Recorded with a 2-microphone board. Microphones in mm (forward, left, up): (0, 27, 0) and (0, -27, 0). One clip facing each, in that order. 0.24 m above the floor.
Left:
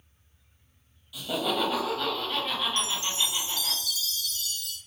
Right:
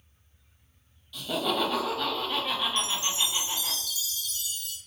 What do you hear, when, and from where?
1.1 s laughter: 10° left (ahead or behind), 0.9 m; by 3.8 s 10° right (ahead or behind), 1.6 m
2.8 s a chime: 20° right (ahead or behind), 1.0 m